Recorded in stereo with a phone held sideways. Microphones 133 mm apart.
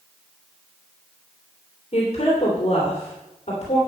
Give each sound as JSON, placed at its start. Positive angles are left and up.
{"t": 1.9, "sound": "a woman speaking", "side_deg": 55, "distance_m": 3.0}